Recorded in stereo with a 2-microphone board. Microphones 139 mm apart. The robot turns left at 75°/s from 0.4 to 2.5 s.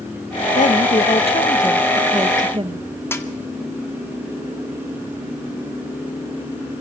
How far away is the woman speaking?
About 1.1 m.